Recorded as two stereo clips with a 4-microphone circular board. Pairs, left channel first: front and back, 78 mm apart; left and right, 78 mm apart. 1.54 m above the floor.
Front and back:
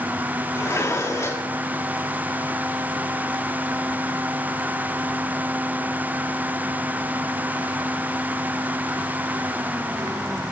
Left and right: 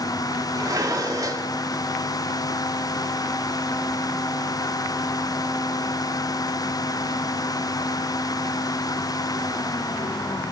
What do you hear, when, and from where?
0.6 s dishes clattering: 55° right, 2 m